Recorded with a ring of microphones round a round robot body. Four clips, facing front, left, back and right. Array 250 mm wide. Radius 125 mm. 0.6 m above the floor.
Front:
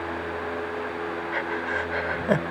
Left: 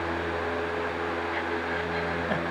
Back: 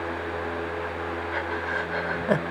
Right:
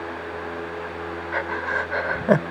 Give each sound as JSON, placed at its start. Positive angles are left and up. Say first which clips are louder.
{"t": 1.3, "sound": "breathing", "louder": "right 3 dB, front 1 dB", "azimuth_deg": -85}